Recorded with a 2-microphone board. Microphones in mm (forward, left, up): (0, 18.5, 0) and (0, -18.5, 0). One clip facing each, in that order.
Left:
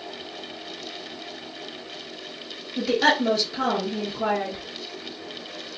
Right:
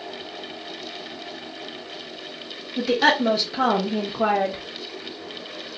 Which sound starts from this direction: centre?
A woman speaking, at 2.8 s.